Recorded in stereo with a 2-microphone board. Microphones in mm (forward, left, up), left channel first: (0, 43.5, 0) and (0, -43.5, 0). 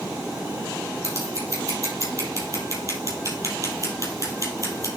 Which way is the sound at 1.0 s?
40° right (ahead or behind).